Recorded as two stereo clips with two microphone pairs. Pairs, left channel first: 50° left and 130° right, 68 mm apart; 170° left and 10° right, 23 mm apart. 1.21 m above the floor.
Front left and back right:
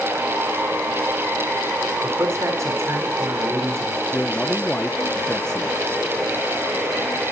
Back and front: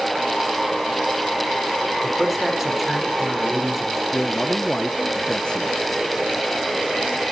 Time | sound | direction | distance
2.0 | a man speaking | 85° right | 4 m
4.1 | a man speaking | 130° left | 1.0 m